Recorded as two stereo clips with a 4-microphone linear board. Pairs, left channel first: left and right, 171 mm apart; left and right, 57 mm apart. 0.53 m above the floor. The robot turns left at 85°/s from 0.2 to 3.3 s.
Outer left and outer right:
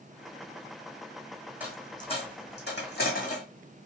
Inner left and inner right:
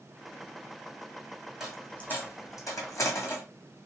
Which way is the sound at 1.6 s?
10° right (ahead or behind).